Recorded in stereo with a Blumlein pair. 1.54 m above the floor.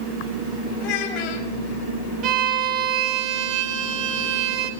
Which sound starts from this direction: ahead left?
A child speaking, at 0.8 s.